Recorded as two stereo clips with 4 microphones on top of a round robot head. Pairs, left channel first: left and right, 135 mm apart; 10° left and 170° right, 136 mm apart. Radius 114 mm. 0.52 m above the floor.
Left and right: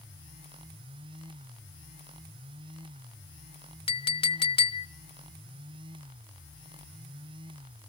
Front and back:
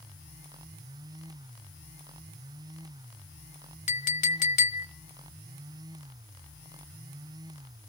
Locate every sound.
3.9 s a clink: 40° left, 0.8 m